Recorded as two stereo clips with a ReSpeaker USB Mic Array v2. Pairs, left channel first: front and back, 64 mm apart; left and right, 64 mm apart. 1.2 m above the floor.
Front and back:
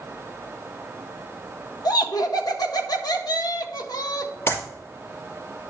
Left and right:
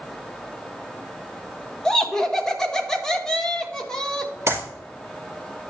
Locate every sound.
1.9 s laughter: 5° left, 1.3 m
4.5 s a clap: 50° right, 4 m